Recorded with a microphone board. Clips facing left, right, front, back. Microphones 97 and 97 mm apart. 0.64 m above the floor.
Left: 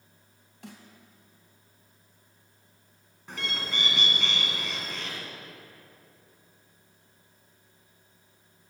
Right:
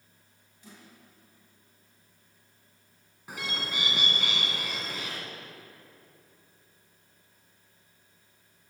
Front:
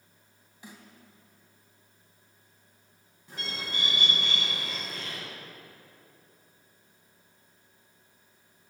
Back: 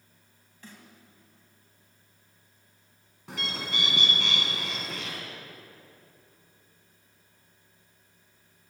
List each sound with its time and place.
0.6 s a snare drum: 75° left, 2 m
3.3 s a bird: 170° right, 2 m